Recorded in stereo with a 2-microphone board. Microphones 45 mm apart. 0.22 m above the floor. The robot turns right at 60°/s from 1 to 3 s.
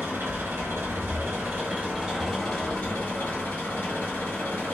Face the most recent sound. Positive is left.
turn(degrees=40)